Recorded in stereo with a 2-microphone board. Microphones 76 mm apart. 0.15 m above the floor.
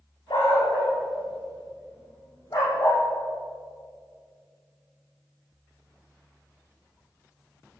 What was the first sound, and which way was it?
A dog barking, 70° left (ahead or behind).